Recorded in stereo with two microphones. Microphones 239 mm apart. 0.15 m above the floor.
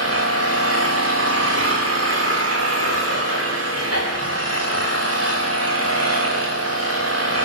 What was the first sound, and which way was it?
An engine running, 80° right.